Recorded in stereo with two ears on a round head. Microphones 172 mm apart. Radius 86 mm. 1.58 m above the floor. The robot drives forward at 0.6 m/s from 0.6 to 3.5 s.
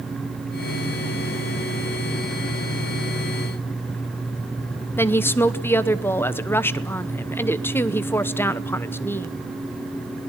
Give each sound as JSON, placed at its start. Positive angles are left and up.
{"t": 5.0, "sound": "a woman speaking", "side_deg": 10, "distance_m": 0.8}